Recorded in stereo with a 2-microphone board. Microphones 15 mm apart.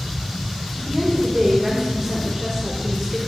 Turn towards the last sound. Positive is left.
turn(degrees=-35)  # may be behind; listen again after turning